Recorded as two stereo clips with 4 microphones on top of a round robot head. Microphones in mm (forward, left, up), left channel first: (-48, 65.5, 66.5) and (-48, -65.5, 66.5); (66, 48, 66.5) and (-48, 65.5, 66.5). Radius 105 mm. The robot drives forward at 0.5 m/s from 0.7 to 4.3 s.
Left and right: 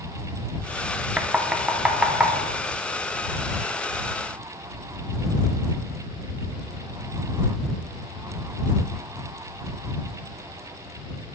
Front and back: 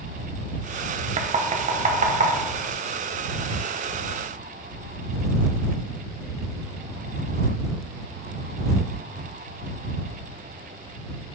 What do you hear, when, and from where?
1.2 s knocking: 170° right, 0.6 m; by 2.3 s 175° right, 1.2 m